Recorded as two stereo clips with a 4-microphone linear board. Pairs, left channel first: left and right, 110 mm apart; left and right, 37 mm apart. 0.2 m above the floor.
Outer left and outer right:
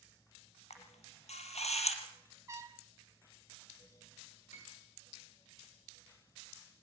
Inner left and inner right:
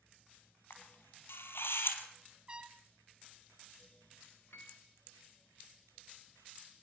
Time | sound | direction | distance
0.7 | a camera shutter | 80° left | 3 m
2.5 | a trumpet | 30° right (ahead or behind) | 0.5 m
4.5 | a piano | 80° left | 4.5 m